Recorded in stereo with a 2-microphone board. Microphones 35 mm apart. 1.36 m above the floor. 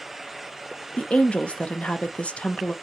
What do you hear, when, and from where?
1.0 s a woman speaking: 40° left (ahead or behind), 0.5 m